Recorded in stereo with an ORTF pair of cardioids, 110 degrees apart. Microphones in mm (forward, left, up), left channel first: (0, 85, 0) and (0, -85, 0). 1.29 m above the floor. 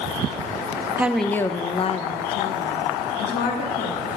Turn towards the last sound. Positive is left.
turn(degrees=75)